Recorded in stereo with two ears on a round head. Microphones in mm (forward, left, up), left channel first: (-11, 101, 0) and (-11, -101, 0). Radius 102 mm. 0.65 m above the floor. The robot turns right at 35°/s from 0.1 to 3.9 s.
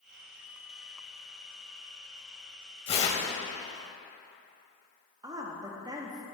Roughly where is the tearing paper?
Left.